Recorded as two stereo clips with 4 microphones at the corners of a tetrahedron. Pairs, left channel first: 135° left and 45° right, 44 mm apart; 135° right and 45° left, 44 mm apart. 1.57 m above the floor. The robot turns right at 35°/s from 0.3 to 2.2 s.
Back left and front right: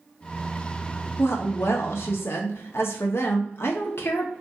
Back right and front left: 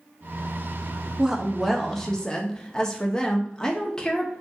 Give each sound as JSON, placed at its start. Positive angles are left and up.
{"t": 1.2, "sound": "a woman speaking", "azimuth_deg": 120, "distance_m": 0.5}